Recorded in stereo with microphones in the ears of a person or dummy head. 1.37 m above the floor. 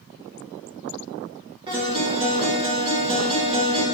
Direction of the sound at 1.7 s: 30° right (ahead or behind).